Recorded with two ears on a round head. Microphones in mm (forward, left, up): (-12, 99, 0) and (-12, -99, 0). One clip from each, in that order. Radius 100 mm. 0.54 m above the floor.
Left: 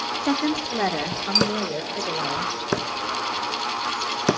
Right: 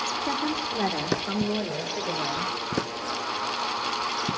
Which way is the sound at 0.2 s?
40° left (ahead or behind).